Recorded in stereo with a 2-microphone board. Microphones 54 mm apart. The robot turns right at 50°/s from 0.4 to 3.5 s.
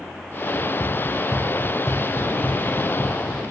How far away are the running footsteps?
About 0.7 m.